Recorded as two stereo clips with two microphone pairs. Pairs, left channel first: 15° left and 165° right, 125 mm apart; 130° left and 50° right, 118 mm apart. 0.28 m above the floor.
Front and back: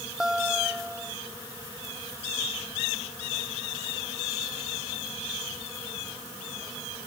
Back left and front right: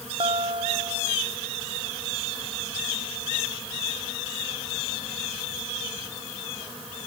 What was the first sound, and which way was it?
A guitar, 80° right.